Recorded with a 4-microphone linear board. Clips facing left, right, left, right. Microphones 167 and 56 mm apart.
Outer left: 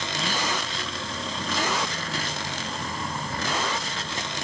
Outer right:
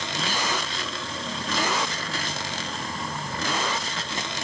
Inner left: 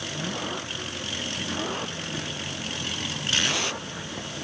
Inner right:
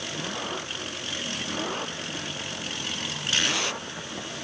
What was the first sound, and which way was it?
Only background noise.